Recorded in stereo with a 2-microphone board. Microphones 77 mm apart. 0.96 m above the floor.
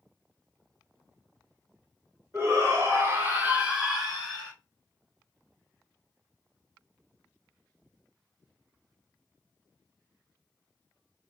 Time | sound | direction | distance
2.3 | a shout | 40° right (ahead or behind) | 1.3 m